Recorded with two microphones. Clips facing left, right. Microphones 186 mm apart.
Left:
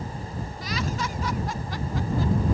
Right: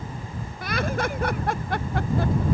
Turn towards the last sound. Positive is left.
turn(degrees=-65)  # may be behind; listen again after turning